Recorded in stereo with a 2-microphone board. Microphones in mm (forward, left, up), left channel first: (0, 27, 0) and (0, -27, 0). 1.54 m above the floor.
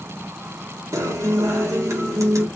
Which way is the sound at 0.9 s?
85° right.